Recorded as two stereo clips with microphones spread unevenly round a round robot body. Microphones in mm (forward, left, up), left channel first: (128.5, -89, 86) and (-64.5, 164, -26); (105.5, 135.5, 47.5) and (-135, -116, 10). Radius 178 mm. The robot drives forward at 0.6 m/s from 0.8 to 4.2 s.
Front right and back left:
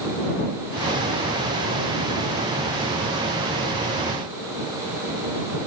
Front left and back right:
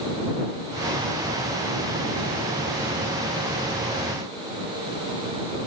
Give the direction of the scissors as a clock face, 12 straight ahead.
No scissors in this recording.